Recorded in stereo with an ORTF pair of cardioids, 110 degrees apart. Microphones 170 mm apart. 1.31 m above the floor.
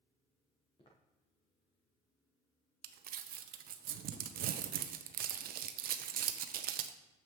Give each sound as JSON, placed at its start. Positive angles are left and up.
{"t": 0.8, "sound": "footsteps", "azimuth_deg": 30, "distance_m": 4.5}
{"t": 2.8, "sound": "crumpling", "azimuth_deg": -60, "distance_m": 0.7}